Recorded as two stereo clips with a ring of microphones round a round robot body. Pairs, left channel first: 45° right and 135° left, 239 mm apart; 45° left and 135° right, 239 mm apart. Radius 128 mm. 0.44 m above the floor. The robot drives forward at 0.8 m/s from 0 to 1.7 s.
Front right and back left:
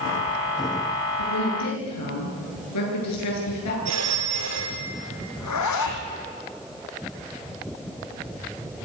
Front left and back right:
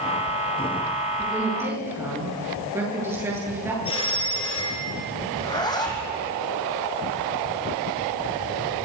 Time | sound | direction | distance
1.2 | a woman speaking | 55° right | 9.5 m
3.9 | a phone ringing | 115° left | 6 m
5.4 | a zipper | 30° right | 3.5 m